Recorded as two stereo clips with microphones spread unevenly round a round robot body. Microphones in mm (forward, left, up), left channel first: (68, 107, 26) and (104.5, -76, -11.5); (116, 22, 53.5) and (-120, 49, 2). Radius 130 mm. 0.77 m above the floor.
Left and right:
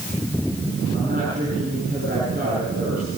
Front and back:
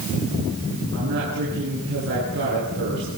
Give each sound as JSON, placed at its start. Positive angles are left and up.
{"t": 0.9, "sound": "a woman speaking", "azimuth_deg": -135, "distance_m": 9.0}